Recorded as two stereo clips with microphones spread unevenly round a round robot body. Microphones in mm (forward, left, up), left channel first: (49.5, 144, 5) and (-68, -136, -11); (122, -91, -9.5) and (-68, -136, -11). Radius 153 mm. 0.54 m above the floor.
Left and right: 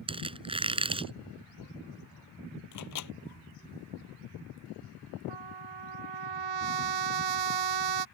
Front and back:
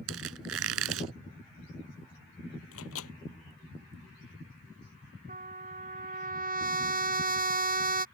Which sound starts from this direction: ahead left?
A microwave, at 2.7 s.